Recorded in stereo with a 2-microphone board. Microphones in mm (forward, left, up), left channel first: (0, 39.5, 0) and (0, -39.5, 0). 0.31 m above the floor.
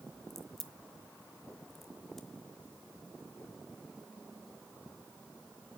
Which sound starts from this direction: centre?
A crack, at 0.3 s.